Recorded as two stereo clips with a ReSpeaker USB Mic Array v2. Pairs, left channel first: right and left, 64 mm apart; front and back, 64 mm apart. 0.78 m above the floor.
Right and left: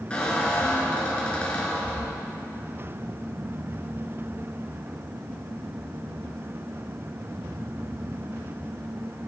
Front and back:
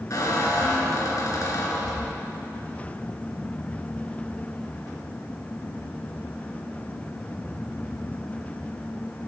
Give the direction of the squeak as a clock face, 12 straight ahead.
1 o'clock.